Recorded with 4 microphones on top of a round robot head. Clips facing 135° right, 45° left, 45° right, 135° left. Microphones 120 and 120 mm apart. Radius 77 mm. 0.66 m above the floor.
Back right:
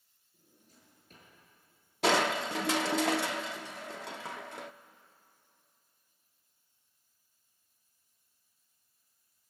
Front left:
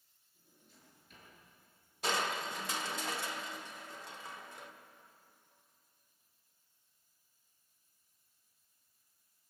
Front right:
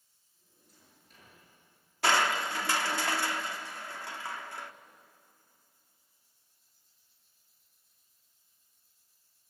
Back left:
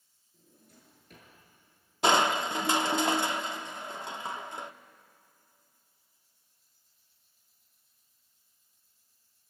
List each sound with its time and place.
0.3 s a drawer: 175° left, 7 m
2.0 s crushing: 155° right, 0.7 m